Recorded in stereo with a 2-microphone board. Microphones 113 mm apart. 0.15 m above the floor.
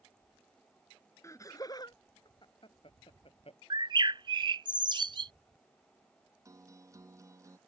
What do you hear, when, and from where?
1.2 s laughter: 30° left (ahead or behind); by 3.6 s 60° left (ahead or behind)
3.7 s a bird: 45° right (ahead or behind)
6.5 s a guitar: 25° right (ahead or behind)